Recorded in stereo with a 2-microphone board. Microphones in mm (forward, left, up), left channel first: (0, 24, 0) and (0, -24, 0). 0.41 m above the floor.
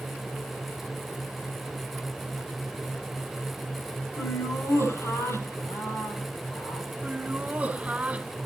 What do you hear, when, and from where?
4.2 s laughter: 75° left (ahead or behind), 6 m
7.0 s laughter: 25° right (ahead or behind), 1.7 m